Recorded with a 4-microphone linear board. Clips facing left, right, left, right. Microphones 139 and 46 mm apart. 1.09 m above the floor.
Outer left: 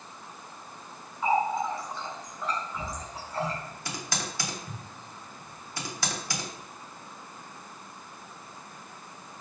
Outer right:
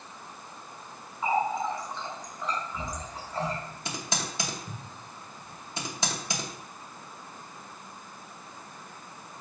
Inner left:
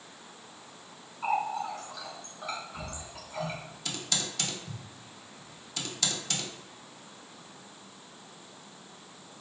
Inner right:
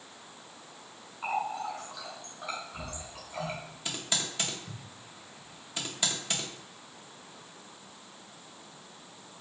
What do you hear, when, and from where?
1.2 s a running tap: 5° left (ahead or behind), 2 m
3.9 s typing on a keyboard: 20° right (ahead or behind), 0.9 m